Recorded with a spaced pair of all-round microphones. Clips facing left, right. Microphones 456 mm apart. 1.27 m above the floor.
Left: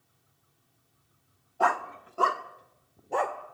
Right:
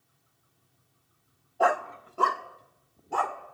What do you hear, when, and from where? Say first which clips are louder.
1.6 s a dog barking: right 3 dB; 20° left (ahead or behind), 0.9 m; by 3.4 s 25° right (ahead or behind), 1.7 m